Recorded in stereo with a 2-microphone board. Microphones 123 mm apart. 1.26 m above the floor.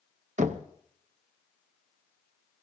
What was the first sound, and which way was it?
Knocking, 85° right.